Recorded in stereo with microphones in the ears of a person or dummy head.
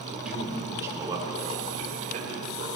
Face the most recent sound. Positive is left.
turn(degrees=-45)  # may be behind; listen again after turning